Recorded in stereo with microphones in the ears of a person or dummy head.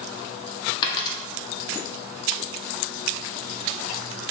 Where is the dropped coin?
30° left (ahead or behind), 1.5 m.